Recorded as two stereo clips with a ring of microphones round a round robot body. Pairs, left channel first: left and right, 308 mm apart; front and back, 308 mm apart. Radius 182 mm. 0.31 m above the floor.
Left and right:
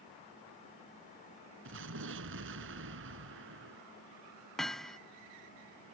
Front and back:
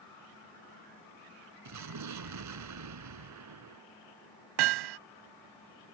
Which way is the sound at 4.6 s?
Straight behind.